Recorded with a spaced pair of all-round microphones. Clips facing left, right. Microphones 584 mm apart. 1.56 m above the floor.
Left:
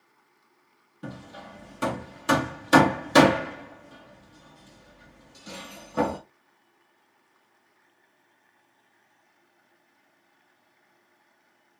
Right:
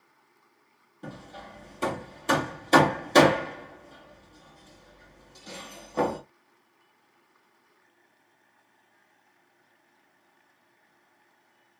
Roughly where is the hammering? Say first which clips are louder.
Left 2 dB; left.